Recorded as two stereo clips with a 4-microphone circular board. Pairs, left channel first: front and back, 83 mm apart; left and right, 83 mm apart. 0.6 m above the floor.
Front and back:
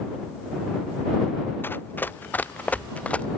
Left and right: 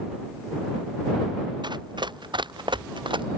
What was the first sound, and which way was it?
Running footsteps, 65° right.